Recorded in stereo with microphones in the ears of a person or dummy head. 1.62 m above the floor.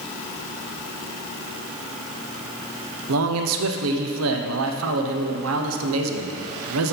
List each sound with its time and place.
3.1 s a man speaking: 80° right, 0.8 m